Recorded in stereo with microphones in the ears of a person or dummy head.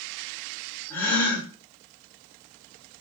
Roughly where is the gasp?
Centre.